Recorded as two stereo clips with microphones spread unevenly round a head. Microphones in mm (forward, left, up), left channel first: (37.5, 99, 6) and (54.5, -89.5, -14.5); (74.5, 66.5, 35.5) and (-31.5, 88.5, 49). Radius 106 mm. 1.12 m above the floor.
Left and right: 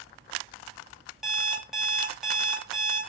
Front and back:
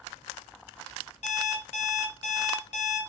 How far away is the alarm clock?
About 0.9 m.